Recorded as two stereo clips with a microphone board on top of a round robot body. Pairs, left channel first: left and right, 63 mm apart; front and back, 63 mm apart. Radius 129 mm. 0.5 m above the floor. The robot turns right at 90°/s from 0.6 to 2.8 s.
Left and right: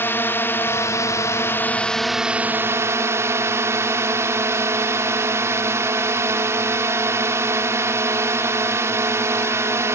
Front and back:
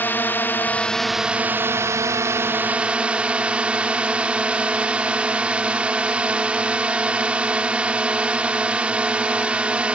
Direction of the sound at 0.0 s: 50° left.